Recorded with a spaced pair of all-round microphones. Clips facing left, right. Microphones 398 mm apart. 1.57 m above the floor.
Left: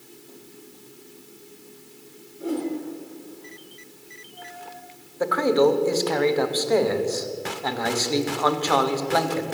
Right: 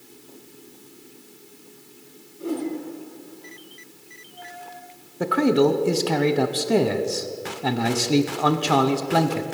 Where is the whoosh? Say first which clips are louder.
Even; centre (ahead or behind), 3 m.